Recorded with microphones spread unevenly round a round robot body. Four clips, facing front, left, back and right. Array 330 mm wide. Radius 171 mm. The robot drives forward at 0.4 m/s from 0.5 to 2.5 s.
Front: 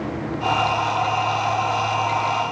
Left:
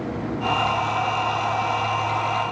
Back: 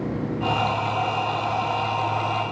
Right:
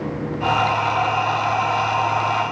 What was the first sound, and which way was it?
Only background noise.